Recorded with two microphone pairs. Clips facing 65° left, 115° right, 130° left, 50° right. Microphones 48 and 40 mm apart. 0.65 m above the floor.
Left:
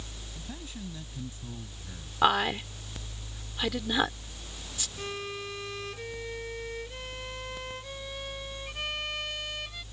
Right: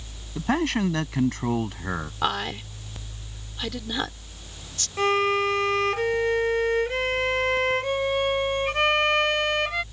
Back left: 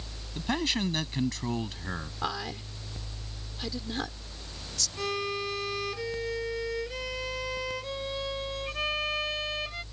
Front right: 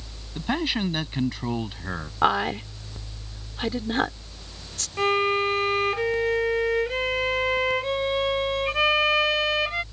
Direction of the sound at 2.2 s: 15° right.